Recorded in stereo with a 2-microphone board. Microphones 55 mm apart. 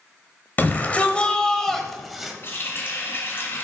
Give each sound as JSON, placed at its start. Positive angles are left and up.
{"t": 0.6, "sound": "a shout", "side_deg": 35, "distance_m": 1.3}
{"t": 2.4, "sound": "a running tap", "side_deg": 45, "distance_m": 2.5}